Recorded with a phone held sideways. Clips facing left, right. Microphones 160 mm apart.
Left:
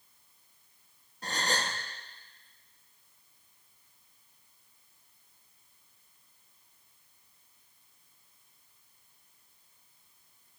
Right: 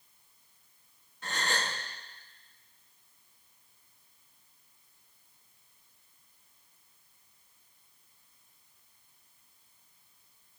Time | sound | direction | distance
1.2 | a gasp | 35° left (ahead or behind) | 1.3 m